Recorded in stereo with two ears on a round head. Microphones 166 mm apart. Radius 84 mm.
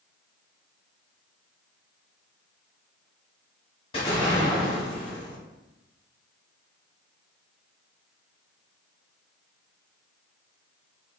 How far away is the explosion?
About 1.1 m.